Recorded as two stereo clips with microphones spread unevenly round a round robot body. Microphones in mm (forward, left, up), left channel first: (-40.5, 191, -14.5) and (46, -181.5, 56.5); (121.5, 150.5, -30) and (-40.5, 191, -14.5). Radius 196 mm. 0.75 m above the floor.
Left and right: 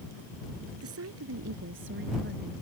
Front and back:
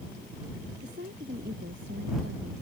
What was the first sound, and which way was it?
A woman speaking, 130° right.